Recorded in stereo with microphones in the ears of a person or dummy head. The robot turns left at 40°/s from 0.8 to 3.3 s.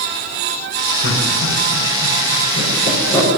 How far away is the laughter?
About 5.5 m.